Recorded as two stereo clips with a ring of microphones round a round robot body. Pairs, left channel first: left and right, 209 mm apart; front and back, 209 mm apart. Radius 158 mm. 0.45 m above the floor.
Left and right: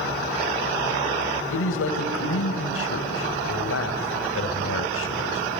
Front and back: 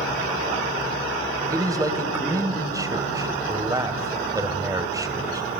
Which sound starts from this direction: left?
A man speaking, at 1.5 s.